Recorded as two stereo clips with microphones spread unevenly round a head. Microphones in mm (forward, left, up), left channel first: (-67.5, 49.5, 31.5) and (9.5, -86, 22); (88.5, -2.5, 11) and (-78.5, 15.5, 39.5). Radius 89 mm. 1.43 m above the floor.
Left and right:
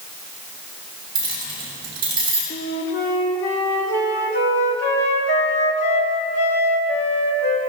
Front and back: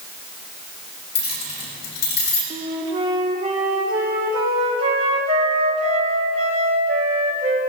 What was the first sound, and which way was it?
Keys jangling, 5° left.